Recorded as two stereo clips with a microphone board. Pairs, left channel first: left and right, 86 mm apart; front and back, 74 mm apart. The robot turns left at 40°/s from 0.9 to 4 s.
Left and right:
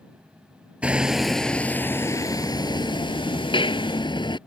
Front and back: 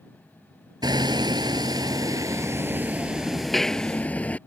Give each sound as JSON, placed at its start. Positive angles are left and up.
{"t": 0.8, "sound": "hammering", "azimuth_deg": -165}